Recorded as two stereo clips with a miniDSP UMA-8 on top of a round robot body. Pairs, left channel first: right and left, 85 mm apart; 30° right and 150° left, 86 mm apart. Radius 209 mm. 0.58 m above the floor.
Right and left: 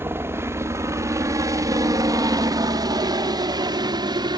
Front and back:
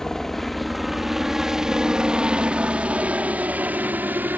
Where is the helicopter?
50° left; by 4.4 s 85° left.